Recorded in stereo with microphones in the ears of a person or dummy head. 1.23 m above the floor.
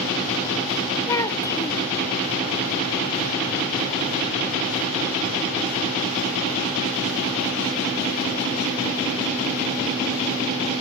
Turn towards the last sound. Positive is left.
turn(degrees=15)  # may be behind; listen again after turning